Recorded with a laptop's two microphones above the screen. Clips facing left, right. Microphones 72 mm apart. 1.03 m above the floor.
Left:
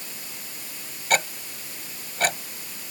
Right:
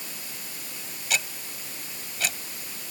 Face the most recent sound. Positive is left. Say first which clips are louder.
# left 7 dB
turn(degrees=50)  # may be behind; listen again after turning